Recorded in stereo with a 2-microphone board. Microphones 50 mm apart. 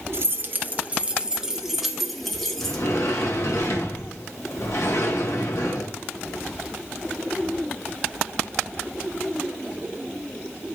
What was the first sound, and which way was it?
Keys jangling, 55° right (ahead or behind).